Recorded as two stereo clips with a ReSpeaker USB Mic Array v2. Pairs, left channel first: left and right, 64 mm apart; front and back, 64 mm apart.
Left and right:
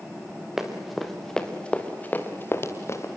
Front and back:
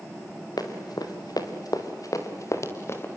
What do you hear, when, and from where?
0.6 s running footsteps: 5° right, 4 m; by 3.1 s 50° left, 3.5 m